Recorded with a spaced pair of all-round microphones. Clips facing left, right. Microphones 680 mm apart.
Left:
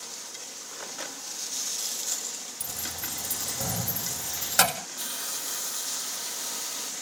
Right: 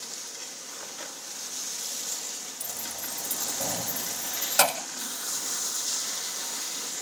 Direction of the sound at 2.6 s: 40° left (ahead or behind).